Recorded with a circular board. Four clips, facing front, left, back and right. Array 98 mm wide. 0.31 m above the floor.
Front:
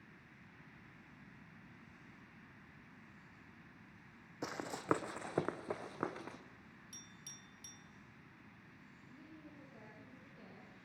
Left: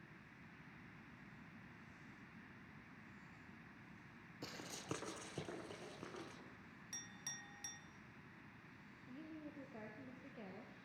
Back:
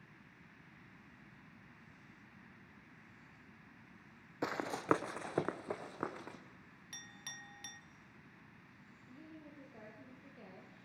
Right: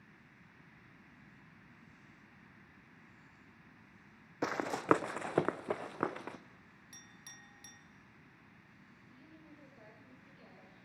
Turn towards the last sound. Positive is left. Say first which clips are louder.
# left 6 dB, back 3 dB
turn(degrees=105)